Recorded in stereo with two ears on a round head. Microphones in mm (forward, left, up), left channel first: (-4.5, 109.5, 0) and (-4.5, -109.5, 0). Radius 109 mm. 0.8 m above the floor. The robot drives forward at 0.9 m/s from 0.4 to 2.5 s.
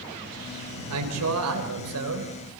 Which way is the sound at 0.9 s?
75° right (ahead or behind).